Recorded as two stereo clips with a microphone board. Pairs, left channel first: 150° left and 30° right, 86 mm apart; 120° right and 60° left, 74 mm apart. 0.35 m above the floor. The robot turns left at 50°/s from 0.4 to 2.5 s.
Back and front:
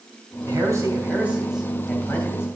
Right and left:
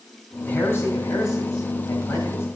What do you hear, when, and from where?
0.5 s a man speaking: 60° right, 2.5 m; by 2.5 s 160° right, 2.5 m